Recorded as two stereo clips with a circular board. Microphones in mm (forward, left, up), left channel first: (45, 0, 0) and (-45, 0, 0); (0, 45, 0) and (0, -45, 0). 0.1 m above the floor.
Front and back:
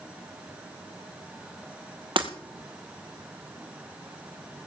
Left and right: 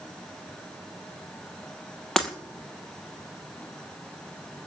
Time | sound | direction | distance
2.2 | breaking glass | 175° left | 2 m